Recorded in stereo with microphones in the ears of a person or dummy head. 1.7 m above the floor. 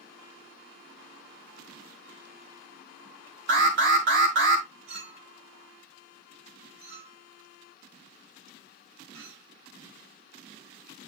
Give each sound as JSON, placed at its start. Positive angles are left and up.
{"t": 3.5, "sound": "an alarm", "side_deg": -55, "distance_m": 1.4}
{"t": 4.9, "sound": "a clink", "side_deg": -70, "distance_m": 3.5}